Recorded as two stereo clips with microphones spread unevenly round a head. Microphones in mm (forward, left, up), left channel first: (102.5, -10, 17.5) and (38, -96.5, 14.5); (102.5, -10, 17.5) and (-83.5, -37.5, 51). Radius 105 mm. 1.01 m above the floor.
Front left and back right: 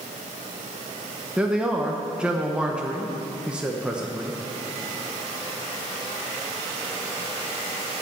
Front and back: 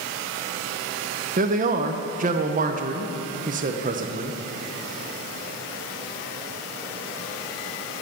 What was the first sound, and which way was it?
A man speaking, 155° left.